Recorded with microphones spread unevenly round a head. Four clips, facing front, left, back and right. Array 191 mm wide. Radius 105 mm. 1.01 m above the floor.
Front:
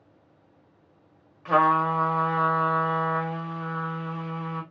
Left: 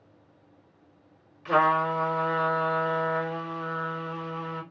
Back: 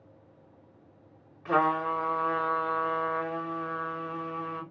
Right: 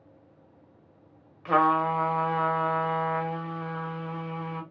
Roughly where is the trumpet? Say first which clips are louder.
Even, front 5 dB; ahead right.